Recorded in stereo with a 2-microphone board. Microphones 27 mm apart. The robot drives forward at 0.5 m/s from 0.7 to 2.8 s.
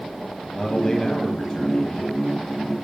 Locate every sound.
0.5 s a man speaking: 30° left (ahead or behind), 1.5 m; by 2.2 s 25° left (ahead or behind), 1.9 m